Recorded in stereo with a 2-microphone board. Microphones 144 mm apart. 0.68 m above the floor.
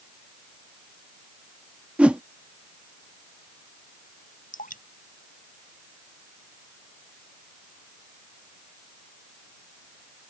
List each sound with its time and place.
2.0 s a whoosh: 10° right (ahead or behind)
4.5 s dripping: 70° left (ahead or behind)